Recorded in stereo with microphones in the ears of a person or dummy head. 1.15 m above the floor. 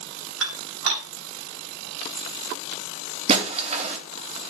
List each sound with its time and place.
0.4 s dishes clattering: 75° right (ahead or behind), 4 m
3.3 s breaking glass: 30° right (ahead or behind), 2 m